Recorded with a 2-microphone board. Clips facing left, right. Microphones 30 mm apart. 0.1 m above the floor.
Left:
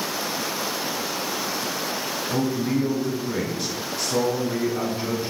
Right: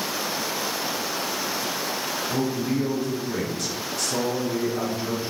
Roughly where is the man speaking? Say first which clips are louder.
Left 3 dB; centre.